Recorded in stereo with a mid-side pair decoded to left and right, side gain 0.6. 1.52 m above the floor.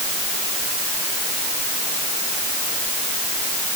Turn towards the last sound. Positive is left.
No sound to turn to.